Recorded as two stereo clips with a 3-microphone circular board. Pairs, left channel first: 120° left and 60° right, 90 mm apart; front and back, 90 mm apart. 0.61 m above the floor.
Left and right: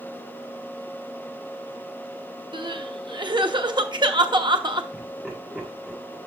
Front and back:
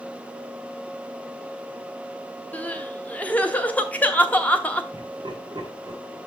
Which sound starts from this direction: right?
Crying, at 2.5 s.